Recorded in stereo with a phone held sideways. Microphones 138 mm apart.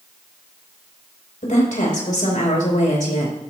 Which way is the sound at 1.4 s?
70° left (ahead or behind).